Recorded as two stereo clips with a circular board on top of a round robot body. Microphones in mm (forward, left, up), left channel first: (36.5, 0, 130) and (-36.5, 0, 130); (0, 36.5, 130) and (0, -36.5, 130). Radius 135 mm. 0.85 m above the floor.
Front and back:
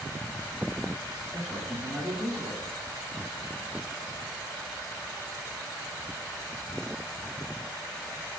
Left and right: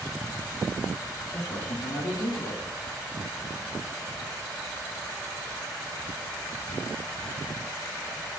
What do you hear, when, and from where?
1.3 s a man speaking: 95° left, 7.5 m